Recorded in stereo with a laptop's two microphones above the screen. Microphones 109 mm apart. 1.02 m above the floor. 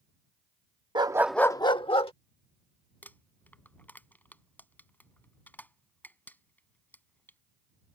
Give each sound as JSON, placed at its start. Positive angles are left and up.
{"t": 0.9, "sound": "a dog barking", "side_deg": -45}
{"t": 3.0, "sound": "crumpling", "side_deg": 15}